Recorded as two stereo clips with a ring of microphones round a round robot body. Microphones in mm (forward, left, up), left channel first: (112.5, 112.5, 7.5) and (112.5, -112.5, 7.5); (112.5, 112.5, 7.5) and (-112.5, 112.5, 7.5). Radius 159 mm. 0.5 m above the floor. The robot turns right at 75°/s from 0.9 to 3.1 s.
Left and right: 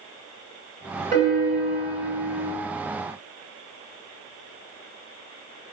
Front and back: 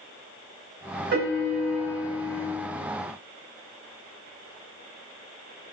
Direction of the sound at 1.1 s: 165° left.